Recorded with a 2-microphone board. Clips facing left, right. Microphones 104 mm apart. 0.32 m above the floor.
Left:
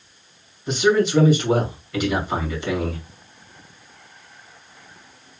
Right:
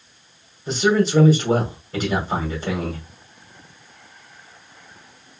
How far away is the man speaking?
About 2 m.